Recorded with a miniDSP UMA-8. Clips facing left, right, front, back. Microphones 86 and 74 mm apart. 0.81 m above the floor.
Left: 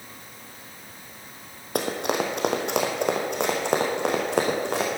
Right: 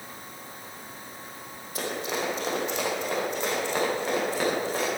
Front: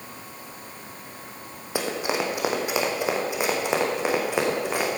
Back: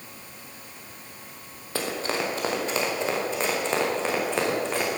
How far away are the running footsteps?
About 2 m.